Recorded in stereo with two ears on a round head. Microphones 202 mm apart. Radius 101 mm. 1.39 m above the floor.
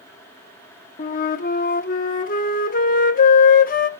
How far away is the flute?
About 1.0 m.